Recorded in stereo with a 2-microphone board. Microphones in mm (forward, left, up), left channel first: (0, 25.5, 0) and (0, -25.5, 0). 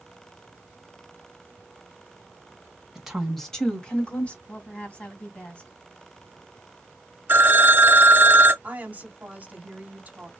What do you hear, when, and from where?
3.0 s a woman speaking: 15° right (ahead or behind), 1.5 m; by 4.4 s 30° left (ahead or behind), 2.5 m
4.5 s a woman speaking: 25° left (ahead or behind), 2.5 m
7.3 s a phone ringing: 40° right (ahead or behind), 1.0 m
8.6 s a woman speaking: 35° right (ahead or behind), 1.9 m